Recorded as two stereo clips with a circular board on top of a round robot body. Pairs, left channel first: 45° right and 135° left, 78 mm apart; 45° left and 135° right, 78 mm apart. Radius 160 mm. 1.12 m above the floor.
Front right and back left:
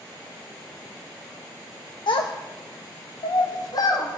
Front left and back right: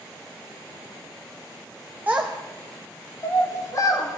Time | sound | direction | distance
2.1 | a child speaking | 65° right | 0.8 m